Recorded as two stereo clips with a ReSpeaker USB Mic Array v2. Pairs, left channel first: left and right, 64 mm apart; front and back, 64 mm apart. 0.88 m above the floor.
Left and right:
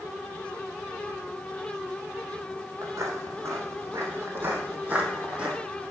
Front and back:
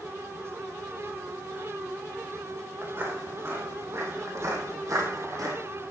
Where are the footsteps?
125° right, 2.5 m; by 5.6 s 160° right, 2 m.